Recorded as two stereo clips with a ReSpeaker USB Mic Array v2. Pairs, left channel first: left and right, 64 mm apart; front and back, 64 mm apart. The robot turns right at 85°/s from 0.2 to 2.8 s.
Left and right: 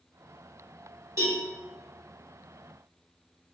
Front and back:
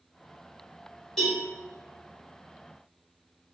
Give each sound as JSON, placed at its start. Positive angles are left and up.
{"t": 1.2, "sound": "a cowbell", "azimuth_deg": -80, "distance_m": 1.9}